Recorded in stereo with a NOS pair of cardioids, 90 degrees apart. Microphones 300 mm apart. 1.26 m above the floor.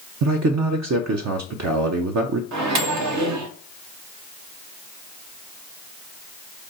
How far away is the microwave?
About 0.8 m.